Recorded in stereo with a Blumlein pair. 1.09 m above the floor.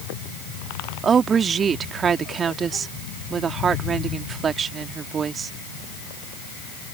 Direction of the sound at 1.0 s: 20° right.